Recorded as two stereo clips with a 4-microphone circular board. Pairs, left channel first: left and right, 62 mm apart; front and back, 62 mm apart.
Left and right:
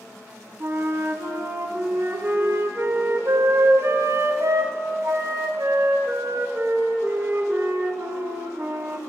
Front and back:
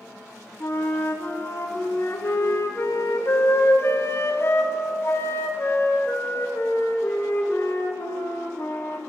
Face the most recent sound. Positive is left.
turn(degrees=-45)